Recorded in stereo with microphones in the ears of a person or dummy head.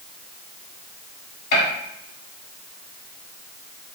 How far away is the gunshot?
About 1.9 m.